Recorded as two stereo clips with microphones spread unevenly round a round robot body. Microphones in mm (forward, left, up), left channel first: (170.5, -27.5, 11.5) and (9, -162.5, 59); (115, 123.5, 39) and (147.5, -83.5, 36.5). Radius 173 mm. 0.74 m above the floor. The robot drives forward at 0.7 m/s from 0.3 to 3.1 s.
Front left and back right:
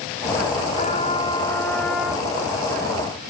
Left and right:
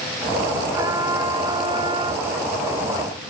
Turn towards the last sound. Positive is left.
turn(degrees=-150)